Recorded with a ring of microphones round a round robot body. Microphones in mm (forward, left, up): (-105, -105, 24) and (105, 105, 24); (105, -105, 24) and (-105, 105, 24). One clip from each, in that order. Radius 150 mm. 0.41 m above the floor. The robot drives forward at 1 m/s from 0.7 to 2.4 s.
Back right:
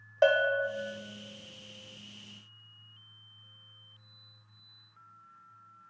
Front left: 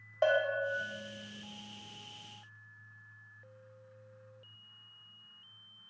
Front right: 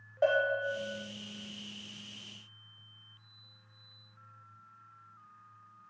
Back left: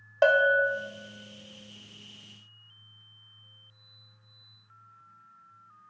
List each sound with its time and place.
0.2 s a bell: 155° left, 0.7 m